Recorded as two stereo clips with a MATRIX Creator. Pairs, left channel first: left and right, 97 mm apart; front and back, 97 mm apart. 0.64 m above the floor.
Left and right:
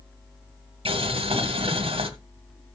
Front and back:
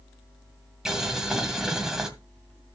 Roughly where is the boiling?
Right.